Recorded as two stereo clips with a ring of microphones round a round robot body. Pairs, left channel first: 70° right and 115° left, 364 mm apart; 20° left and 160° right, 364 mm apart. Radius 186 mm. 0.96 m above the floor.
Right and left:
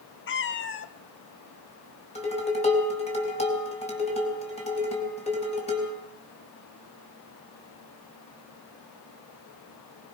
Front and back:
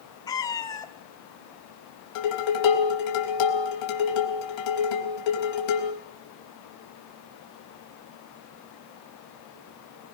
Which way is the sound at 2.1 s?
5° left.